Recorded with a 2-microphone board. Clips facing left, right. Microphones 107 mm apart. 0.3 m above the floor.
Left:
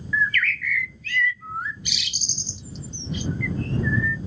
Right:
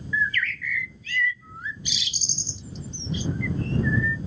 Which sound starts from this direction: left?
A bird, at 0.1 s.